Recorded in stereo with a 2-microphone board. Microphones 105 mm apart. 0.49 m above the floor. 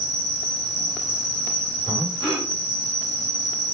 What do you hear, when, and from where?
0.0 s an insect: 35° right (ahead or behind), 3.5 m
1.9 s breathing: 40° right (ahead or behind), 9.5 m